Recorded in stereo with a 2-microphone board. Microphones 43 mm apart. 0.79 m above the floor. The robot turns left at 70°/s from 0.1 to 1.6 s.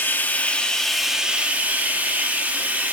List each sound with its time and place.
0.0 s running water: 60° left, 1.2 m; by 2.9 s 45° right, 1.2 m